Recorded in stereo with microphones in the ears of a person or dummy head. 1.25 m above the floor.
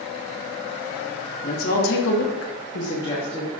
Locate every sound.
1.4 s a woman speaking: 55° left (ahead or behind), 1.8 m; by 3.5 s centre (ahead or behind), 1.3 m